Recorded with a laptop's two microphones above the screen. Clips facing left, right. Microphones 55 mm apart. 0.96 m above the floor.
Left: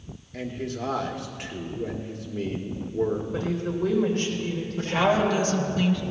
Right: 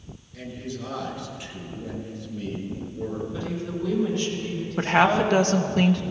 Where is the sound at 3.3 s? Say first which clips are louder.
Left 3 dB; 65° left (ahead or behind), 3 m.